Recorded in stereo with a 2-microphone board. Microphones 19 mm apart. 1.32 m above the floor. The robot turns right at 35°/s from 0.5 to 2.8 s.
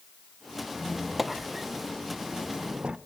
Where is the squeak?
165° left, 0.6 m; by 3.0 s 125° right, 0.6 m.